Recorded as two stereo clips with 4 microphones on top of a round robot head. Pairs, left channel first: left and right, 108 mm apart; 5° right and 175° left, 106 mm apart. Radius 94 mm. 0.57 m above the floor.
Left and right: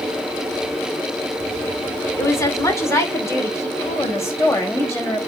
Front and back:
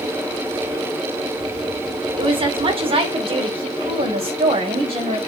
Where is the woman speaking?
150° left, 2 m; by 5.2 s 155° left, 4 m.